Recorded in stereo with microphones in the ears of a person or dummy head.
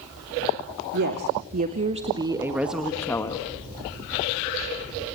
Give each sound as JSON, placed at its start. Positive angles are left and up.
{"t": 0.9, "sound": "a woman speaking", "side_deg": -60, "distance_m": 2.5}